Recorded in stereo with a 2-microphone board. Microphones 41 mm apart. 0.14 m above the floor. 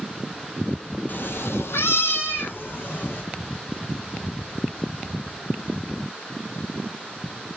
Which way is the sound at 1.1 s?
50° left (ahead or behind).